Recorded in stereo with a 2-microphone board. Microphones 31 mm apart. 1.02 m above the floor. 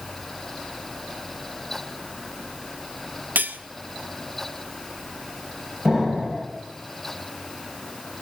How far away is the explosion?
About 5.5 m.